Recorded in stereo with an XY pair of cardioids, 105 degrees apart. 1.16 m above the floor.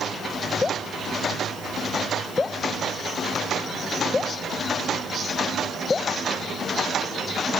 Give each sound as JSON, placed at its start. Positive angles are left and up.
{"t": 0.6, "sound": "dripping", "azimuth_deg": 30}